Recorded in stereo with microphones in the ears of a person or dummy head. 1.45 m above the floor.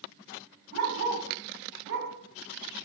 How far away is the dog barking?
About 7.5 m.